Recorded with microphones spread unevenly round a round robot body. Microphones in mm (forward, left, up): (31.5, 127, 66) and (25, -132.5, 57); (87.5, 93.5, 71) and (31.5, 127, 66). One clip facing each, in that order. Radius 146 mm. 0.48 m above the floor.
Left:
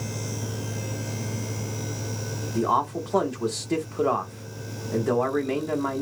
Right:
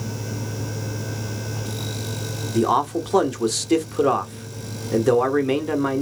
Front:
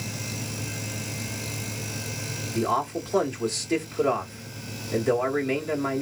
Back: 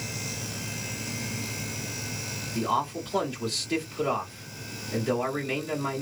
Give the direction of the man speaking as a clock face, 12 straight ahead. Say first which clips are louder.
Right 6 dB, front 2 dB; 3 o'clock.